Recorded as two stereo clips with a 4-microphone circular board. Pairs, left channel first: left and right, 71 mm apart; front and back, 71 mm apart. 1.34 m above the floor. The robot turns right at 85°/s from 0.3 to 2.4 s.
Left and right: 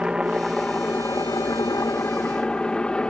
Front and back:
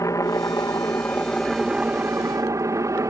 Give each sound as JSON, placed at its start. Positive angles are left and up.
{"t": 0.0, "sound": "a helicopter", "azimuth_deg": -15}